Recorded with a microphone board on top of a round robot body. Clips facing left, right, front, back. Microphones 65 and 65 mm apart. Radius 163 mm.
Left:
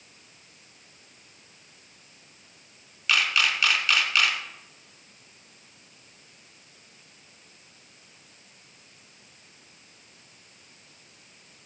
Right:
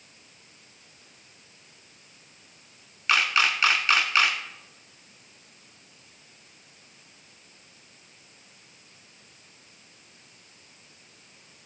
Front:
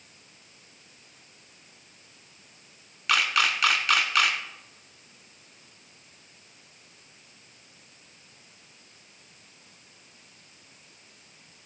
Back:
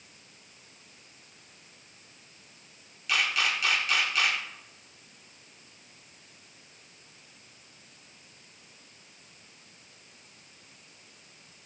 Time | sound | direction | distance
3.1 | a camera shutter | 30° right | 1.3 m